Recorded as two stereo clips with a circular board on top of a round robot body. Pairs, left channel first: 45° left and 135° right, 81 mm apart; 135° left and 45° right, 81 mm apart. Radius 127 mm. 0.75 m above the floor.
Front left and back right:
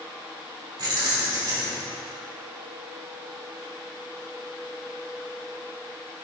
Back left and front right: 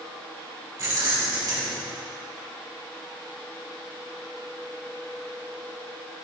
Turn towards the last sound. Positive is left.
turn(degrees=-95)